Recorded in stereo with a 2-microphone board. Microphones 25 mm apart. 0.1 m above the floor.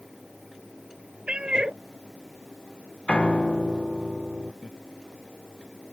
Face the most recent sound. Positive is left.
turn(degrees=-30)  # may be behind; listen again after turning